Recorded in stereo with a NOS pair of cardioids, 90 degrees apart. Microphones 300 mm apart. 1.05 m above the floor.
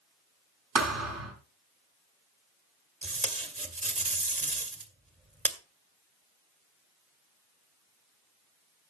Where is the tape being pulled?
25° right, 1.8 m.